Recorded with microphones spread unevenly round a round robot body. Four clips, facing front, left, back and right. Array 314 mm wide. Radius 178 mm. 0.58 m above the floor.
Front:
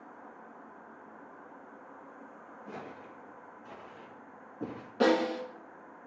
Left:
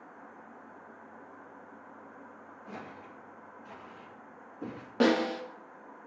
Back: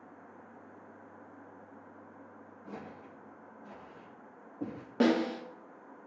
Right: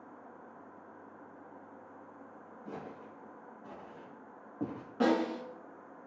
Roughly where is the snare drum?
Behind left.